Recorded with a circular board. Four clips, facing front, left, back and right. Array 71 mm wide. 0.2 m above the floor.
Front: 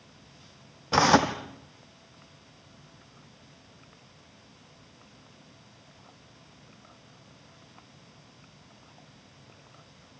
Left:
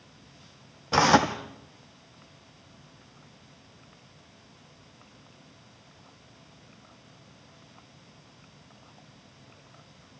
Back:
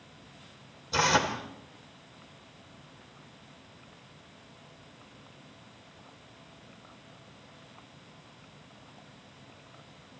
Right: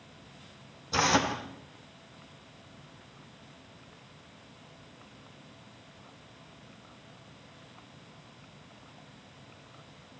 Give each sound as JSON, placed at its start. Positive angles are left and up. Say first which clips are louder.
{"t": 0.9, "sound": "tearing paper", "louder": "left 6 dB, front 5 dB", "azimuth_deg": 40, "distance_m": 2.0}